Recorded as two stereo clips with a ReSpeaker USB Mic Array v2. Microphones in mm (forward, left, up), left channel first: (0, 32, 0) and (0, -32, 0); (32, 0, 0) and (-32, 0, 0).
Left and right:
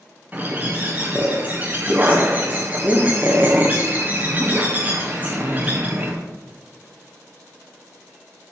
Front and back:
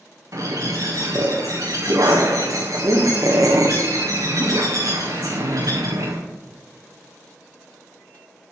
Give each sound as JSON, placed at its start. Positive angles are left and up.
{"t": 0.3, "sound": "a bird", "azimuth_deg": -155, "distance_m": 3.0}